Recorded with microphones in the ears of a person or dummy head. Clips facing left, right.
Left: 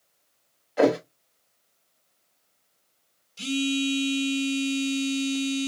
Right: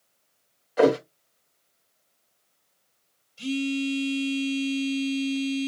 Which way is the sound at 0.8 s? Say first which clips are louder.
Right 1 dB; 5° left (ahead or behind).